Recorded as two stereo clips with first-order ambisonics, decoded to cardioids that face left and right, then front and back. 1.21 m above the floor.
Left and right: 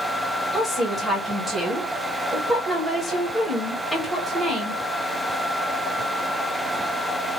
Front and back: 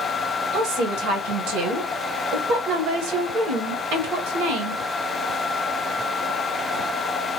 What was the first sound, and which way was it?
A woman speaking, 175° left.